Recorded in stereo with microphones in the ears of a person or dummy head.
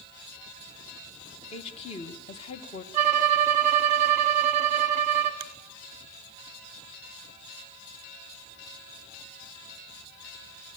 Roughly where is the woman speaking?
Left.